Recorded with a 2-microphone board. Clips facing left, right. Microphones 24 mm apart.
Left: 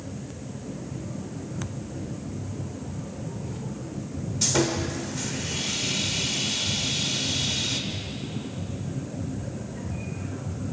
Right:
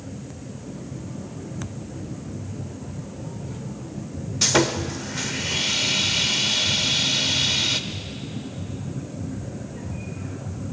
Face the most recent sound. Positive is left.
turn(degrees=-40)  # may be behind; listen again after turning